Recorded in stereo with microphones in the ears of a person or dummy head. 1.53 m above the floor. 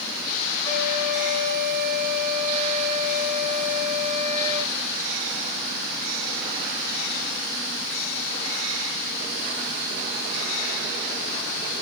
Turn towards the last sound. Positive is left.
turn(degrees=65)  # may be behind; listen again after turning